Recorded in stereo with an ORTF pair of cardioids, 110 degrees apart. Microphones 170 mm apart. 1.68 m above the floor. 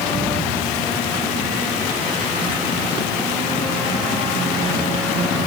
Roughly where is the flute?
I don't hear a flute.